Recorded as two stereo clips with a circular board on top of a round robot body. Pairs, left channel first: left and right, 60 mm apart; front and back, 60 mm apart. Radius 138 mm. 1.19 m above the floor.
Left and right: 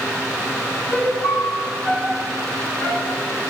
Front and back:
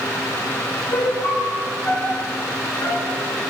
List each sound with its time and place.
0.9 s a piano: 25° left, 5.5 m